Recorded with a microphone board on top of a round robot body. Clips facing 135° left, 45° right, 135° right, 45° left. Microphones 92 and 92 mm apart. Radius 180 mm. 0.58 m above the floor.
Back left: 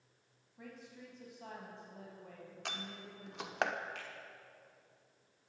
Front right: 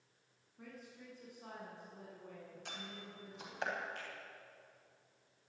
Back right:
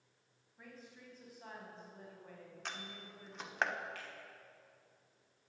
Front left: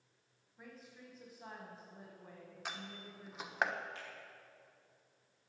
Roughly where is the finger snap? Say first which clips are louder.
Even, even; behind left.